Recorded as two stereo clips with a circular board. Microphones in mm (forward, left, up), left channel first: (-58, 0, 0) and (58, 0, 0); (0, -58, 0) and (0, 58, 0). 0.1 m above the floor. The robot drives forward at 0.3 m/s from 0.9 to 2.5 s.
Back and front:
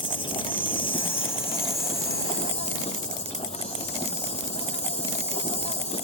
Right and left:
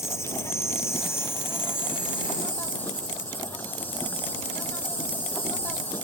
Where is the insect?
150° right; by 6.0 s 165° right.